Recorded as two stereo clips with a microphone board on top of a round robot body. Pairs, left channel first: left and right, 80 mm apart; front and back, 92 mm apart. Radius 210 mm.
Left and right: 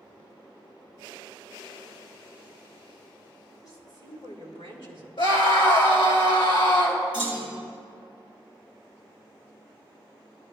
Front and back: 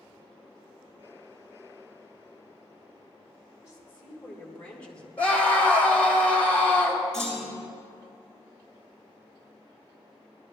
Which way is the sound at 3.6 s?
60° left.